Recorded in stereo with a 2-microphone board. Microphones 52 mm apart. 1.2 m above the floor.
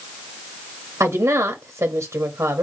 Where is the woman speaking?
65° right (ahead or behind), 1.1 m.